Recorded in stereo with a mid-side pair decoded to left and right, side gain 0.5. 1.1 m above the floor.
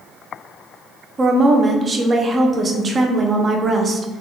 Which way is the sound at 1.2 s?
35° right.